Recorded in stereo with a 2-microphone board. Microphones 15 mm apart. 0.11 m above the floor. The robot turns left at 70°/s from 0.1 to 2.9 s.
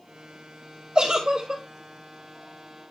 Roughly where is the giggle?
Right.